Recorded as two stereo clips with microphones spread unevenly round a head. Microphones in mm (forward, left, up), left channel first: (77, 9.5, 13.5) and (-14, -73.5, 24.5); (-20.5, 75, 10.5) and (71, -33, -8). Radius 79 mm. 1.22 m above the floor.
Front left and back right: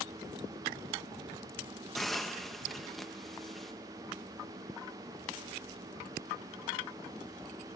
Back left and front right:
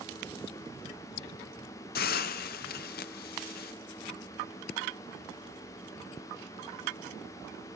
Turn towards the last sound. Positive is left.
turn(degrees=135)